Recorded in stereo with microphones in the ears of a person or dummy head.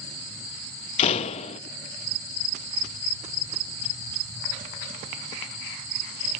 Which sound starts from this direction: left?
A door slam, at 1.0 s.